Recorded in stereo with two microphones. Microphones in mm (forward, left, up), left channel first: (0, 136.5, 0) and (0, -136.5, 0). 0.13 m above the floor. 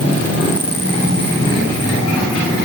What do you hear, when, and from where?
Only background noise.